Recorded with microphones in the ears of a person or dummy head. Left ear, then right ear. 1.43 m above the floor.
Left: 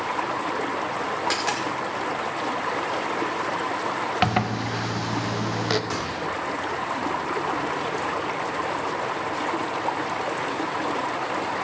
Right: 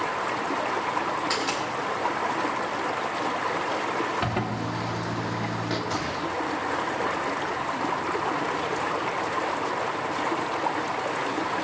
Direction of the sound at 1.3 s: 40° left (ahead or behind).